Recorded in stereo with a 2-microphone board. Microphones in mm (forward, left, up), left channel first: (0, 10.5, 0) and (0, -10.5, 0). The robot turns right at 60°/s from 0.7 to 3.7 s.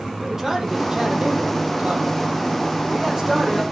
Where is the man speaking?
160° right, 4 m; by 3.6 s 15° left, 4 m.